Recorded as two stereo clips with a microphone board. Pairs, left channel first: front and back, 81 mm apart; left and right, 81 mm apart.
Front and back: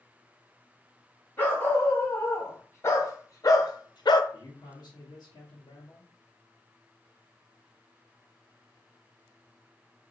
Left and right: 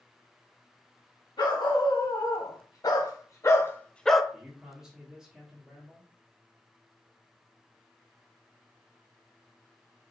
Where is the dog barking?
65° left, 1.8 m; by 4.2 s 5° right, 0.5 m.